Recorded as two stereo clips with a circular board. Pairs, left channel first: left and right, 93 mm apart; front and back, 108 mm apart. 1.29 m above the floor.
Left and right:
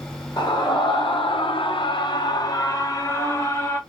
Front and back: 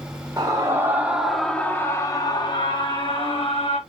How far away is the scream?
About 1.0 m.